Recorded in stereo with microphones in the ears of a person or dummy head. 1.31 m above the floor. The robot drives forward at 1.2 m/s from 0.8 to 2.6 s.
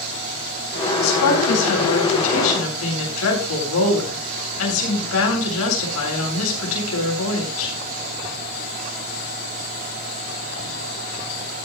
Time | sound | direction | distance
1.0 | a woman speaking | 80° left | 8.5 m